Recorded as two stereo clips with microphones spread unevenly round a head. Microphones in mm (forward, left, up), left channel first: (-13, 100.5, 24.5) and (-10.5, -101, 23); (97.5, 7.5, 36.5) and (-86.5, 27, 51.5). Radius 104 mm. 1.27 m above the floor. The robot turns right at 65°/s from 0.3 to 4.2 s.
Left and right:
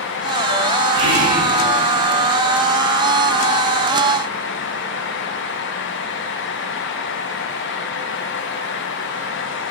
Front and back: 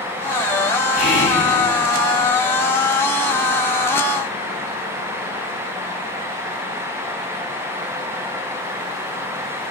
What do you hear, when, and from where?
0.9 s whispering: 105° right, 1.1 m; by 1.4 s 70° right, 1.1 m